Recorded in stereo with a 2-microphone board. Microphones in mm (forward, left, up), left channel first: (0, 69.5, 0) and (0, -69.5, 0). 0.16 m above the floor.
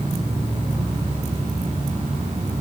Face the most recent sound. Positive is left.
turn(degrees=-45)  # may be behind; listen again after turning